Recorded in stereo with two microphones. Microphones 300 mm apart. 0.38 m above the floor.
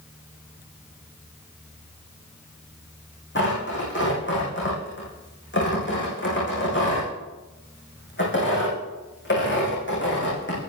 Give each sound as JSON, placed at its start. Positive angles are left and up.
{"t": 3.4, "sound": "tearing paper", "side_deg": 40, "distance_m": 9.0}